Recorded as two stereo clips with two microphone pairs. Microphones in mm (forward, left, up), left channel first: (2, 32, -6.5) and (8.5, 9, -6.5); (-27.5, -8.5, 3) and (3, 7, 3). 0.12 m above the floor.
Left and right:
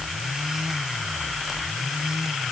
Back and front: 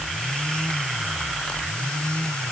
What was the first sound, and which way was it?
Only background noise.